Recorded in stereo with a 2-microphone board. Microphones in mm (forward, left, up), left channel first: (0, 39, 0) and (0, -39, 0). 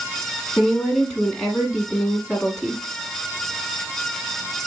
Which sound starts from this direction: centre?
A woman speaking, at 0.6 s.